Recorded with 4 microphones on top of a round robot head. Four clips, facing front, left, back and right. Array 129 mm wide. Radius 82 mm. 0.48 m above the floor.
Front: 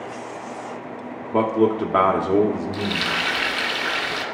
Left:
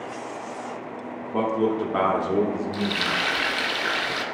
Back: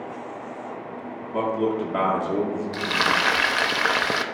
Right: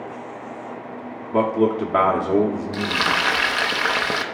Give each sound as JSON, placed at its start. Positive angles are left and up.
{"t": 1.3, "sound": "a man speaking", "azimuth_deg": -30, "distance_m": 1.0}
{"t": 2.7, "sound": "frying", "azimuth_deg": -140, "distance_m": 0.6}